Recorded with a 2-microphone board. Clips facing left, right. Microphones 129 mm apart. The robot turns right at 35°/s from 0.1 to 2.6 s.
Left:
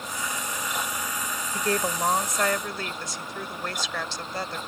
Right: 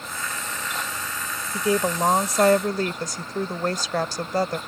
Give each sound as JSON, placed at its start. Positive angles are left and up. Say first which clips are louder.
{"t": 1.5, "sound": "a woman speaking", "louder": "right 5 dB", "azimuth_deg": -170}